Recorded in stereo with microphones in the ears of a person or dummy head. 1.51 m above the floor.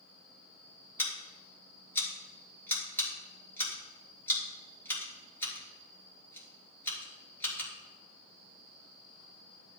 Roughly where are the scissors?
Centre.